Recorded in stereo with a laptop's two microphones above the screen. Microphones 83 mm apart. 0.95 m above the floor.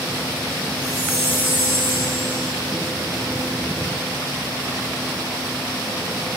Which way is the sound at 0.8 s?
25° left (ahead or behind).